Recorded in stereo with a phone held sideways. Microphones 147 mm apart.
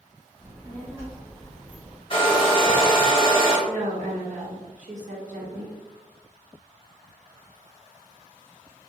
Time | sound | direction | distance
0.4 | a child speaking | 25° right (ahead or behind) | 1.7 m
2.1 | a hair dryer | 35° left (ahead or behind) | 0.8 m
3.7 | a woman speaking | 55° right (ahead or behind) | 1.0 m